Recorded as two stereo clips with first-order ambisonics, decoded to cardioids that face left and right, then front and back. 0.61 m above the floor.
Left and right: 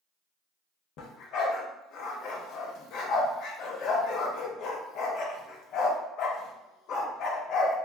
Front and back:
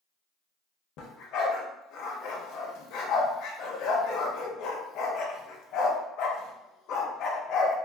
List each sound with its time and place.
1.0 s a dog barking: 45° left, 0.6 m